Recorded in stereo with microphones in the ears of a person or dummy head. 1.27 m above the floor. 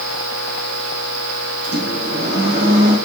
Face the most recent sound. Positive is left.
turn(degrees=-60)  # may be behind; listen again after turning